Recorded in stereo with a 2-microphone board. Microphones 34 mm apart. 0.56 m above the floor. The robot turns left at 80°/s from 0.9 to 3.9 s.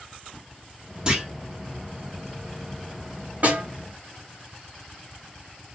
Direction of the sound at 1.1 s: 25° right (ahead or behind).